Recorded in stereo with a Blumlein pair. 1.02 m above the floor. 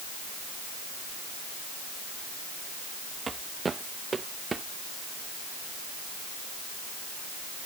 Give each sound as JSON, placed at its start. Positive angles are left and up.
{"t": 3.3, "sound": "footsteps", "azimuth_deg": -15}